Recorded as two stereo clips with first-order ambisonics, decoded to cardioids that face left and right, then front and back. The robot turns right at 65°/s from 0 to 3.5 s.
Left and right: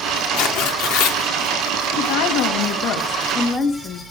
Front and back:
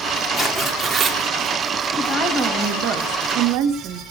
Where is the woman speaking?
75° left, 2.5 m; by 4.0 s 175° left, 2.5 m.